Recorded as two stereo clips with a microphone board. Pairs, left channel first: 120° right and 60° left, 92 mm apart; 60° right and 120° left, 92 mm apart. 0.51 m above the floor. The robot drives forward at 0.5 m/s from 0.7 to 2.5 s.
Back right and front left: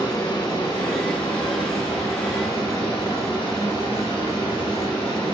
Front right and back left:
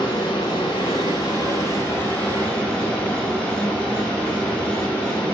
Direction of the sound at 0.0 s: 85° right.